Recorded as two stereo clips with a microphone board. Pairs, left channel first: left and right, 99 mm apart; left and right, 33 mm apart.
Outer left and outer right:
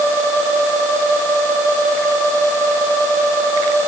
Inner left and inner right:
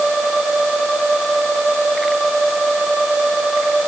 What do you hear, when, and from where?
Only background noise.